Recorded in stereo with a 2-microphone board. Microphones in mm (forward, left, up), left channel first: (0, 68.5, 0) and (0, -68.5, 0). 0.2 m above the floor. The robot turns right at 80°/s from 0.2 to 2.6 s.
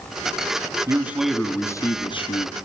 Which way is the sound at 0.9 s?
35° right.